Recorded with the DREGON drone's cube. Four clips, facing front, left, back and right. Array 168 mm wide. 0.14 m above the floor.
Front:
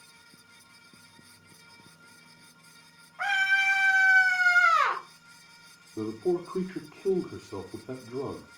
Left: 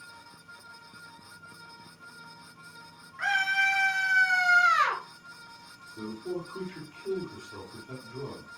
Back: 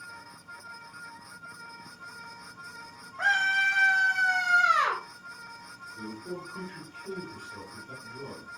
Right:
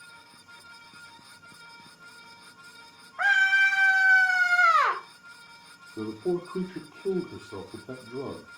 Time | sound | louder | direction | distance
3.2 | a scream | right 5 dB, back 1 dB | 105° right | 7 m
6.0 | a man speaking | right 6 dB, front 11 dB | 40° right | 3 m